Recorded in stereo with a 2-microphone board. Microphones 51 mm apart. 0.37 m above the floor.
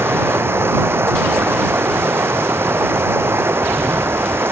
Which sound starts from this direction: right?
Running water, at 0.0 s.